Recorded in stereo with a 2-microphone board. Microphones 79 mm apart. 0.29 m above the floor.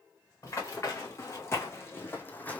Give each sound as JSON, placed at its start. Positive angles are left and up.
{"t": 0.4, "sound": "running footsteps", "side_deg": 40, "distance_m": 1.8}